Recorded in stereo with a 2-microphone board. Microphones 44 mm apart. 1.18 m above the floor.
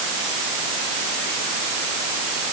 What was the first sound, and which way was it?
Only background noise.